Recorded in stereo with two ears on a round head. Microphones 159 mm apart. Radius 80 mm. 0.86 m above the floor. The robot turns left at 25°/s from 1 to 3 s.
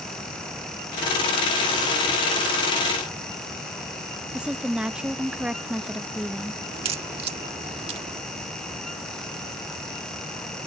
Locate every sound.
4.3 s a woman speaking: 5° right (ahead or behind)
6.7 s a crack: 30° right (ahead or behind)